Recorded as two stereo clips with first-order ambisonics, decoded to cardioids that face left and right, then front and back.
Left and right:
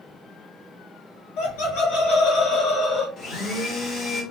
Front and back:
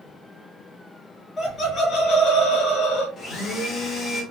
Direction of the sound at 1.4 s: 85° left.